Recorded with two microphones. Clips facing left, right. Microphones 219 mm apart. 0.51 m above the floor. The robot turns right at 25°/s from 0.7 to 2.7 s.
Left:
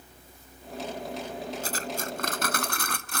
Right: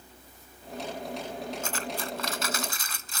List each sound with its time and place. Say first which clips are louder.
1.6 s cutlery clinking: left 1 dB; 35° left (ahead or behind); by 3.2 s 65° left (ahead or behind)